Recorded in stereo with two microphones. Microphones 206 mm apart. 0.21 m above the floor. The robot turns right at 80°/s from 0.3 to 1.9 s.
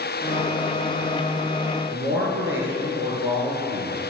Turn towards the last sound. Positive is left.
turn(degrees=-70)  # may be behind; listen again after turning